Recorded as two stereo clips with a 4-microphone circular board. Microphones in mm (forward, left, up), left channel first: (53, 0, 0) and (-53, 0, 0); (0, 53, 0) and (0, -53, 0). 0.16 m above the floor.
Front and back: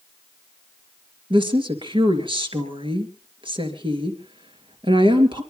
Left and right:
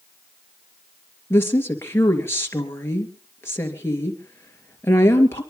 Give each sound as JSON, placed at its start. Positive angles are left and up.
{"t": 1.3, "sound": "a woman speaking", "azimuth_deg": 155, "distance_m": 3.0}